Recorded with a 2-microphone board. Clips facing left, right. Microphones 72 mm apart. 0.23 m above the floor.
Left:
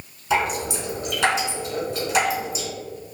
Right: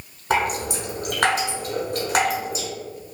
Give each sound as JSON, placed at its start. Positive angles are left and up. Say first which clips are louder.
{"t": 0.3, "sound": "dripping", "louder": "even", "side_deg": -55, "distance_m": 0.9}